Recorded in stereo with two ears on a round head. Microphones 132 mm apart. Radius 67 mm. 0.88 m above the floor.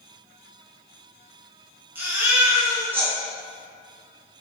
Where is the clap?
No clap in this recording.